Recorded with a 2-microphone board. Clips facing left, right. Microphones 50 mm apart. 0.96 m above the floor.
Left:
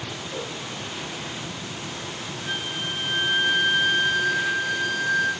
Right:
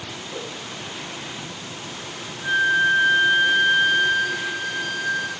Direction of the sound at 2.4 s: 15° right (ahead or behind).